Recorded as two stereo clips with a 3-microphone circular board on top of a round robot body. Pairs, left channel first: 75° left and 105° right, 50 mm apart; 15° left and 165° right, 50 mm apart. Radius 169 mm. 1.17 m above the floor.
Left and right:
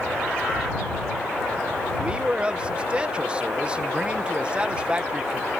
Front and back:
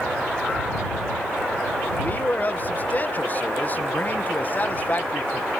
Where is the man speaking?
35° right.